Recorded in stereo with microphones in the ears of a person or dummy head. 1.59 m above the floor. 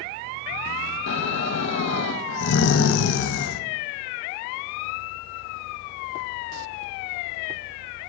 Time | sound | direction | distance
1.1 | snoring | 65° left (ahead or behind) | 1.0 m